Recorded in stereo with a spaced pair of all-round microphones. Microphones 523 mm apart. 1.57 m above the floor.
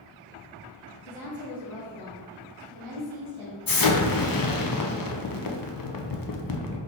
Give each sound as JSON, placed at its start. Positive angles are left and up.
{"t": 1.1, "sound": "a woman speaking", "side_deg": 35, "distance_m": 0.8}
{"t": 3.7, "sound": "an explosion", "side_deg": 45, "distance_m": 0.5}